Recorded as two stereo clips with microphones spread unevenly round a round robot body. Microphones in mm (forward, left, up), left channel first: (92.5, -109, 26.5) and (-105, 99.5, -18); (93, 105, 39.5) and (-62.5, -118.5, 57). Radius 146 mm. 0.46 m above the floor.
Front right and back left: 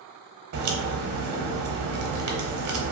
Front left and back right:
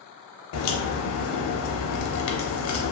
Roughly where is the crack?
Left.